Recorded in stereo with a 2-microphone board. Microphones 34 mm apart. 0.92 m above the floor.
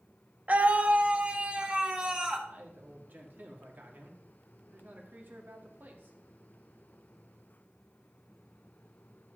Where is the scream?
45° right (ahead or behind), 0.9 m; by 2.4 s 25° right (ahead or behind), 1.8 m.